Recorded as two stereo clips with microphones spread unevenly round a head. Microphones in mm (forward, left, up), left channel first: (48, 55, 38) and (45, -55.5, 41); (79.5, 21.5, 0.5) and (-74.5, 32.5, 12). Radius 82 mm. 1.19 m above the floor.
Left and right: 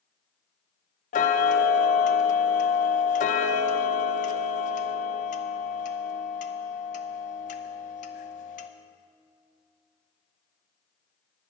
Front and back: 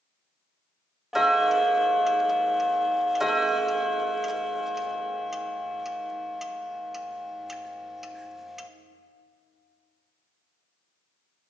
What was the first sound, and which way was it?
Ticking, 90° left.